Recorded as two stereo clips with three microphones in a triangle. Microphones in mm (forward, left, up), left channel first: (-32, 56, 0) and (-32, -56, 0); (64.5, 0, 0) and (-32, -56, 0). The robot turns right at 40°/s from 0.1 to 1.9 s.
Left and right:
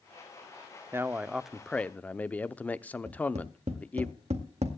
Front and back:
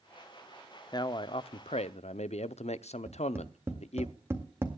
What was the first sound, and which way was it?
A man speaking, 25° right.